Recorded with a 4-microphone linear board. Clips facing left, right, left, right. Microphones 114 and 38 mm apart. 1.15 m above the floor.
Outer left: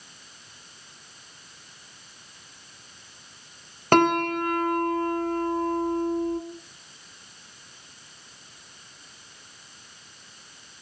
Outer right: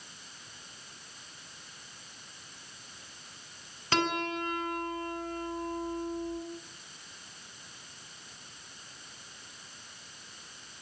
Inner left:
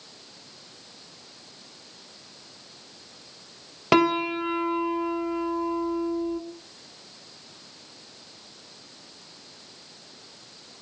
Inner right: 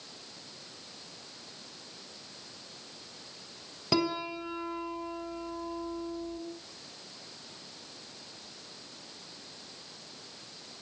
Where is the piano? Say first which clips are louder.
Outer left 11 dB, inner left 10 dB; 55° left (ahead or behind), 1.6 m.